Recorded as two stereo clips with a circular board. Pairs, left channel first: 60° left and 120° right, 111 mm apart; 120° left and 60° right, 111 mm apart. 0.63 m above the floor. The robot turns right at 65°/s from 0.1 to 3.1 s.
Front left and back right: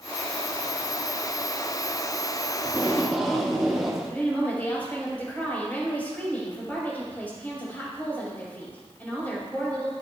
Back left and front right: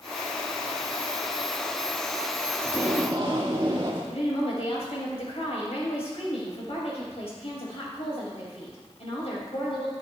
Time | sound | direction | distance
2.6 | tape being pulled | 65° right | 1.6 m
4.1 | a woman speaking | 135° left | 4 m